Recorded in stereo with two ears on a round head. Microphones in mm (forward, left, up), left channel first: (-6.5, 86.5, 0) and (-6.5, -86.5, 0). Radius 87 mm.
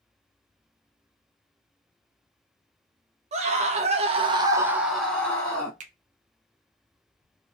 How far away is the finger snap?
About 0.6 m.